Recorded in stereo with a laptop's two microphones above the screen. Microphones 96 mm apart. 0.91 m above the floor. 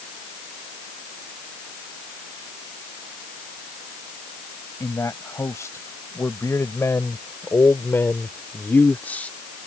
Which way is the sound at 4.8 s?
30° left (ahead or behind).